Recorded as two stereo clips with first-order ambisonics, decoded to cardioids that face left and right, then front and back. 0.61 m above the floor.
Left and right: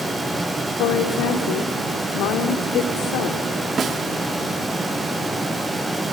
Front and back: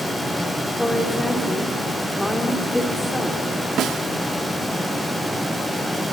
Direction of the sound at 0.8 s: 85° left.